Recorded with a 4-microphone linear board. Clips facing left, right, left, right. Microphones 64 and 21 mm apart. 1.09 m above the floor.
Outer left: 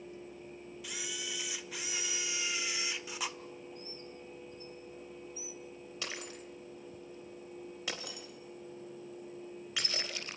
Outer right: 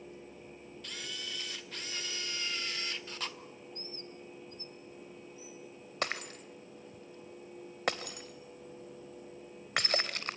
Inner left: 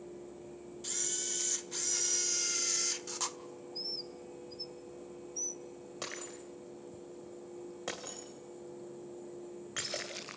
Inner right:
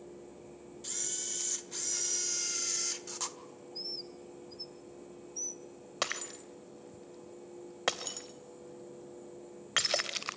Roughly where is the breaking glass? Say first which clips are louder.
Outer right 7 dB, inner right 7 dB; right.